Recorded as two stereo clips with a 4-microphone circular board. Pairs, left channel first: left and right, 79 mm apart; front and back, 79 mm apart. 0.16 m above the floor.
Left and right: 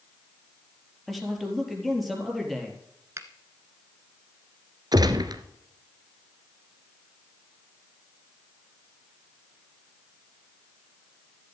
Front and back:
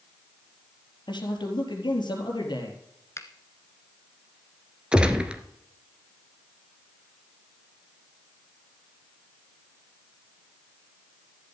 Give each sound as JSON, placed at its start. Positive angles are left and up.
{"t": 1.1, "sound": "a man speaking", "azimuth_deg": 0, "distance_m": 4.0}
{"t": 3.2, "sound": "a finger snap", "azimuth_deg": -45, "distance_m": 1.4}
{"t": 4.9, "sound": "a gunshot", "azimuth_deg": -105, "distance_m": 1.2}